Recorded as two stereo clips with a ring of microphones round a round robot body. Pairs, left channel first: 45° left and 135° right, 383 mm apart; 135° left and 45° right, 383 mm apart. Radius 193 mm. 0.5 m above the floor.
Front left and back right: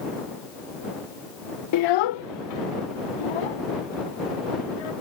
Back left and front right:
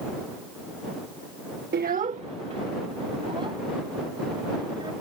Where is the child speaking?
15° left; by 4.9 s 35° left.